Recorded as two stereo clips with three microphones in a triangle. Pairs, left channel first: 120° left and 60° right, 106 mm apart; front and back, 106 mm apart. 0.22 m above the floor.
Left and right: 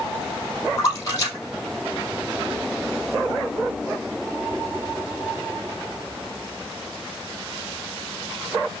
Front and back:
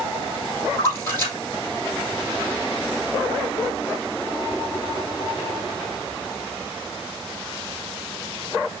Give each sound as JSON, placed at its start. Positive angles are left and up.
{"t": 0.8, "sound": "a splash", "azimuth_deg": 65, "distance_m": 3.5}